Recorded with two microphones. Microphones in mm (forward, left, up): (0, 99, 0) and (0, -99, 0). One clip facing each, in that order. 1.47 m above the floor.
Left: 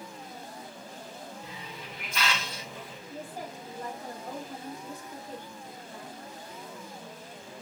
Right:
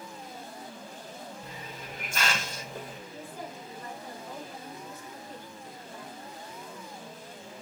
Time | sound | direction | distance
1.4 | a hiss | 45° right (ahead or behind) | 0.6 m
3.1 | a woman speaking | 80° left | 2.5 m